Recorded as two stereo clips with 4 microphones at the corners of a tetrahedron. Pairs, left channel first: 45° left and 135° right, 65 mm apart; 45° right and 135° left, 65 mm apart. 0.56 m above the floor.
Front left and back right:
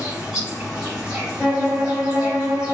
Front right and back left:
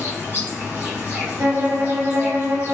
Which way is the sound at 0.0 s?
160° left.